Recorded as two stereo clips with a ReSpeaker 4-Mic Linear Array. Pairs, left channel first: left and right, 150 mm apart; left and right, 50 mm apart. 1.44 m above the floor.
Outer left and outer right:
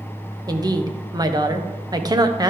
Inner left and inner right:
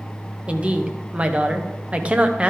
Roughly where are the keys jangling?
No keys jangling in this recording.